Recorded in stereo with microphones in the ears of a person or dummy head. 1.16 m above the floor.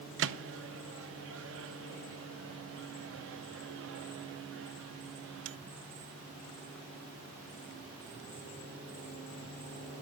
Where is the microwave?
60° right (ahead or behind), 0.6 m.